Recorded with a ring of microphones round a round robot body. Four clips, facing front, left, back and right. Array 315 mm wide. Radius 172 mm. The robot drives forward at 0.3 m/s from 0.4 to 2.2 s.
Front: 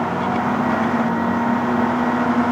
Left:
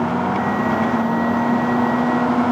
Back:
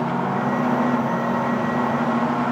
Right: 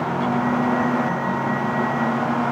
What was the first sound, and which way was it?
Only background noise.